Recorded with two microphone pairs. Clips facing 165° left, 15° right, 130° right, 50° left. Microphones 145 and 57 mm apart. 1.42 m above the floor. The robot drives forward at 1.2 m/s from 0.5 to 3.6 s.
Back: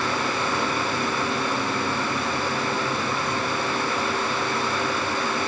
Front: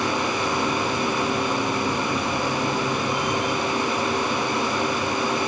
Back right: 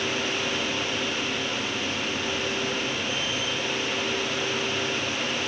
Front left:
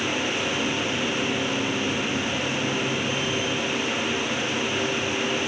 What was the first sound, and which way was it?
Only background noise.